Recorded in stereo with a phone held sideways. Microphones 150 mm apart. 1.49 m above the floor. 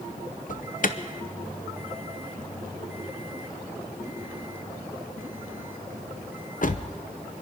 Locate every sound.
0.5 s an alarm: 60° left (ahead or behind), 0.7 m